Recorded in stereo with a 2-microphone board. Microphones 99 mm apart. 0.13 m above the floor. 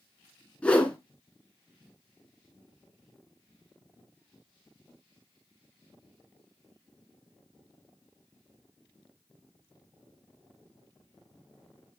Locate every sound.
0.6 s a whoosh: 10° left (ahead or behind), 1.2 m